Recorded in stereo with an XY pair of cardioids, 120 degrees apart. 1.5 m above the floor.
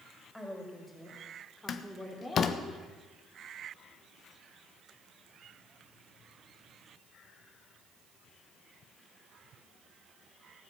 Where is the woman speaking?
5° left, 5 m; by 2.7 s 20° left, 3.5 m.